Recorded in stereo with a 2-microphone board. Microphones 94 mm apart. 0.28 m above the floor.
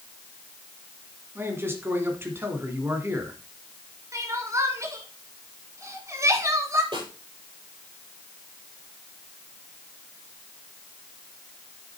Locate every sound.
1.4 s a man speaking: 25° right (ahead or behind), 2.5 m
4.1 s crying: 30° right (ahead or behind), 1.8 m
6.9 s a snare drum: 60° right (ahead or behind), 6.5 m